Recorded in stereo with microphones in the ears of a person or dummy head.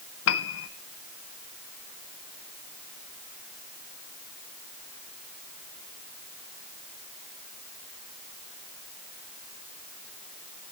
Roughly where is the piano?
Left.